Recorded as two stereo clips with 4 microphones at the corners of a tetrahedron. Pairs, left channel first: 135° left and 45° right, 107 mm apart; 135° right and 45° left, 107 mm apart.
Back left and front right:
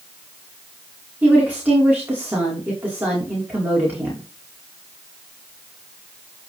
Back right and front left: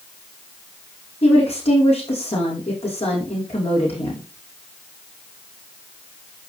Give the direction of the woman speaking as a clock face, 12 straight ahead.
4 o'clock.